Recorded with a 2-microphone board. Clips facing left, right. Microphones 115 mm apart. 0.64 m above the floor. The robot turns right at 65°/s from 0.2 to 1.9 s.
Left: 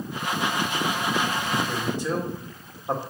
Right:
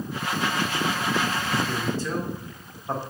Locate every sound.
1.7 s a man speaking: centre (ahead or behind), 2 m; by 3.0 s 15° left (ahead or behind), 2 m